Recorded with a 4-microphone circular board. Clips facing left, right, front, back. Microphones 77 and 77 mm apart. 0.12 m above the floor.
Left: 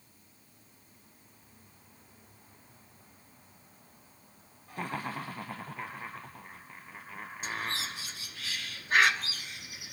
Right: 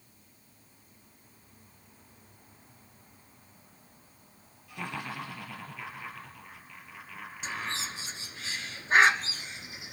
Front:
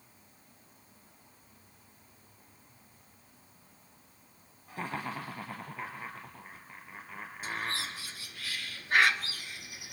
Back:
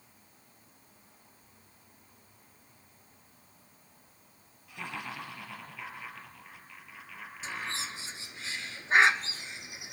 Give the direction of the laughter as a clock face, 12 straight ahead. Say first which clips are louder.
Left 2 dB, front 3 dB; 10 o'clock.